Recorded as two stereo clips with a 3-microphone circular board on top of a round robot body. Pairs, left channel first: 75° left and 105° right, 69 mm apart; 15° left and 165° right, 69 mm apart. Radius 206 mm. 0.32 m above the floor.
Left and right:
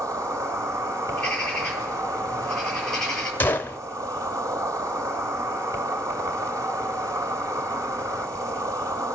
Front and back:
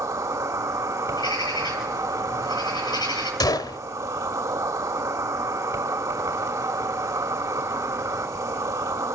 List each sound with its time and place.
0.0 s an insect: 140° right, 3 m
1.1 s a bird: 5° right, 9.5 m
3.4 s a gunshot: 15° left, 1.4 m